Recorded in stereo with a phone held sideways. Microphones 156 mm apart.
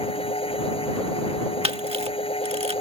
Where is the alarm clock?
I don't hear an alarm clock.